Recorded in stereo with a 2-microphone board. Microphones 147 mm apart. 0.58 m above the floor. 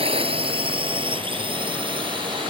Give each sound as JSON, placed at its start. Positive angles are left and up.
{"t": 0.0, "sound": "a drone", "side_deg": -40}